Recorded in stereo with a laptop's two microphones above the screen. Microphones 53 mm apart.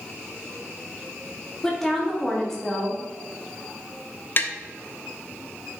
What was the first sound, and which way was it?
A woman speaking, 5° left (ahead or behind).